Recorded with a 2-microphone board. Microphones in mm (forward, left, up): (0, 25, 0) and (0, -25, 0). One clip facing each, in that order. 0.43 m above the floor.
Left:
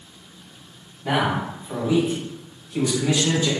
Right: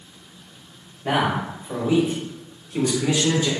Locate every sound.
1.0 s a man speaking: 35° right (ahead or behind), 1.5 m; by 3.5 s 20° right (ahead or behind), 0.8 m